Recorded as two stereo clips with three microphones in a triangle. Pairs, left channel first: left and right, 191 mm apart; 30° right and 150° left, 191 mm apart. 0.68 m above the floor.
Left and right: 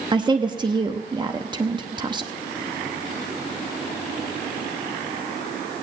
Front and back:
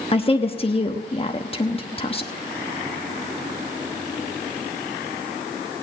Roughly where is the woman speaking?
Ahead right.